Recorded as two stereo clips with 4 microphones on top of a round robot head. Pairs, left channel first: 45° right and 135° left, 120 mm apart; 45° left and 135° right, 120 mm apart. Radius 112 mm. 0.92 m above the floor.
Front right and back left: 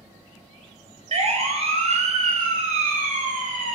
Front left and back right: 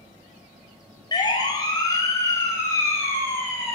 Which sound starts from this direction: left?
A siren, at 1.1 s.